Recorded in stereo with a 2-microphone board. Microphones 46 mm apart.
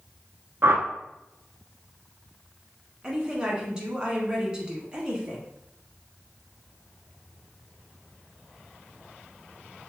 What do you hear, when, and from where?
0.6 s a whoosh: 55° right (ahead or behind), 0.5 m
3.0 s a woman speaking: 15° right (ahead or behind), 1.1 m